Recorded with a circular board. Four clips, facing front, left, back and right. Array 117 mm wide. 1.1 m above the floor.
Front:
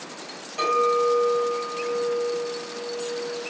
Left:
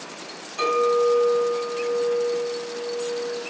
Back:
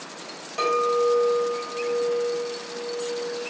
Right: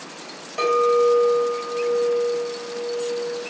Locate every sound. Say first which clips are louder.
0.6 s a clink: right 2 dB, front 1 dB; 120° right, 1.8 m